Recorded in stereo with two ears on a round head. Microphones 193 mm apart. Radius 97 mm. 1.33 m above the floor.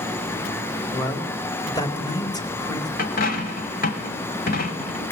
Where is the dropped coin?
45° left (ahead or behind), 1.8 m.